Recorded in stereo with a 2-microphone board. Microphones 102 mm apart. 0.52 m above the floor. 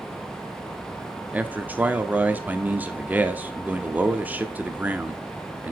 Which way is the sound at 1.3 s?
15° right (ahead or behind).